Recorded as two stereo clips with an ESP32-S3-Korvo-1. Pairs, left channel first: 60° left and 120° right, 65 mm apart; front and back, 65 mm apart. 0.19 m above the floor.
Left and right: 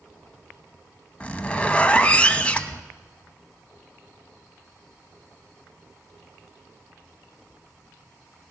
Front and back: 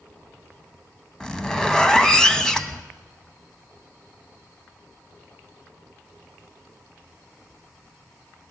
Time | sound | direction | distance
1.2 | a zipper | 50° left | 0.9 m